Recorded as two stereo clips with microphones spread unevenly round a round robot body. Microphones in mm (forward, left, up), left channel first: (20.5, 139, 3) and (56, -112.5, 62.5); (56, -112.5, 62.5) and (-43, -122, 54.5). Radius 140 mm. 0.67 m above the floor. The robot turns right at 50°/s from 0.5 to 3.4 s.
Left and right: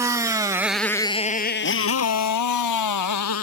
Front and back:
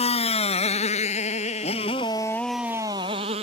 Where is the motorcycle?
5° right; by 3.5 s 140° left.